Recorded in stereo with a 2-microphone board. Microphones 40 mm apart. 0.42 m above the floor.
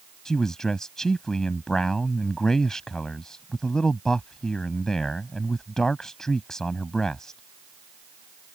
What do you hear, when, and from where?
0.2 s a man speaking: 15° left (ahead or behind)